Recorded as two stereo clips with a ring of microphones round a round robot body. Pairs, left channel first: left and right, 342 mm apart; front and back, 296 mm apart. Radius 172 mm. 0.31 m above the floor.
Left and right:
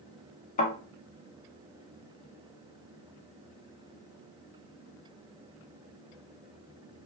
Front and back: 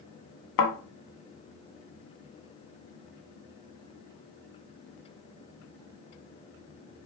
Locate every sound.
0.6 s a thud: 20° left, 0.8 m